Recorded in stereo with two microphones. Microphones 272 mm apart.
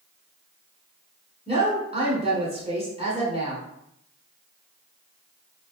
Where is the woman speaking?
20° right (ahead or behind), 1.3 m.